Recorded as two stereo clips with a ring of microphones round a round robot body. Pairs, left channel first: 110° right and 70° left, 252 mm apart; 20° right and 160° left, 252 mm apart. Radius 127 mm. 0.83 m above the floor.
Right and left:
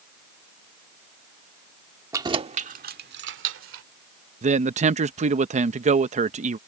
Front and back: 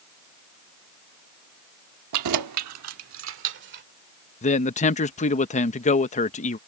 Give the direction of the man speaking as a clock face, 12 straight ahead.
11 o'clock.